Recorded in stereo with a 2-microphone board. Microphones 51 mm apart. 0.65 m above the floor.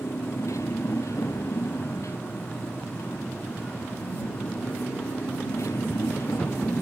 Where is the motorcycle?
80° left.